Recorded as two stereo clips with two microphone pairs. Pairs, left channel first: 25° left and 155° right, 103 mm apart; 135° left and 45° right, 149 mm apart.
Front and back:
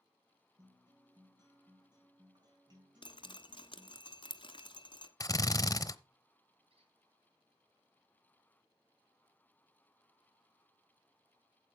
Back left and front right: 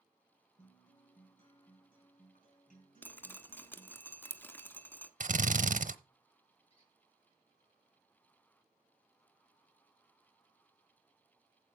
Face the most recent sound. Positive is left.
turn(degrees=-175)